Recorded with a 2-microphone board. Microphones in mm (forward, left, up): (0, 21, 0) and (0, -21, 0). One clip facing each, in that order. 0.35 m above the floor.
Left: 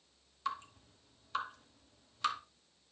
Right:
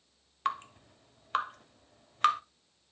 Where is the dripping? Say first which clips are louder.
Right 6 dB; 55° right (ahead or behind), 0.6 m.